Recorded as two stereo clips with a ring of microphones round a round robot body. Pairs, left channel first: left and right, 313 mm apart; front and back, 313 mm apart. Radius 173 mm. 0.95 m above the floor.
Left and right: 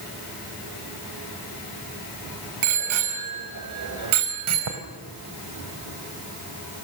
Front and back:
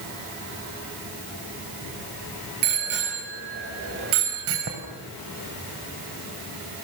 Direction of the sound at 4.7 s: 115° right.